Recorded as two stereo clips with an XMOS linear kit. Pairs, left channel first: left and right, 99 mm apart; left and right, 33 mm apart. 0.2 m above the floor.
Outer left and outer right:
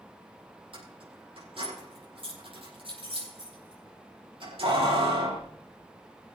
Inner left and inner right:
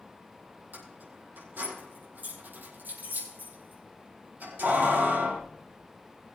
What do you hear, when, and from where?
0.7 s keys jangling: 65° right (ahead or behind), 5 m